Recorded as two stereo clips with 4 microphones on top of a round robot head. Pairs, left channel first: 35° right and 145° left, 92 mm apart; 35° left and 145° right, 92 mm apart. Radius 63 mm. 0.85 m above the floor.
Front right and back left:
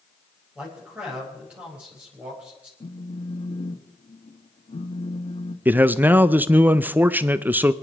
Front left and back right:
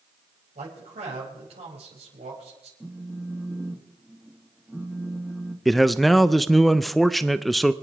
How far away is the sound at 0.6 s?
About 5 m.